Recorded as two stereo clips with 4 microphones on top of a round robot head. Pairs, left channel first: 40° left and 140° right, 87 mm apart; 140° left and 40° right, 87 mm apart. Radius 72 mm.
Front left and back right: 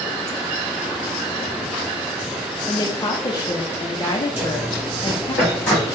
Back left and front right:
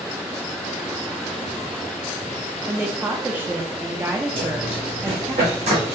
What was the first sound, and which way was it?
A woman speaking, 20° left.